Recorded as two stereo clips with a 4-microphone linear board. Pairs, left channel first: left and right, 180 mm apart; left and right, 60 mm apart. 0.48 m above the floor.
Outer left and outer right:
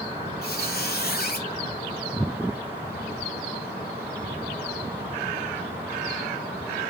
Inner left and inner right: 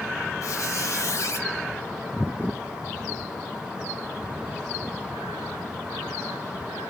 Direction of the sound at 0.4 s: 60° left (ahead or behind).